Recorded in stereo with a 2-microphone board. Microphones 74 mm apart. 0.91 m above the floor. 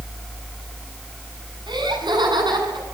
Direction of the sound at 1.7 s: 80° right.